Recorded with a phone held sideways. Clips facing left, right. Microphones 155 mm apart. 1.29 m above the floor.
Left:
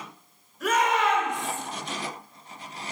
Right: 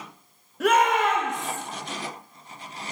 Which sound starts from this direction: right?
A shout, at 0.6 s.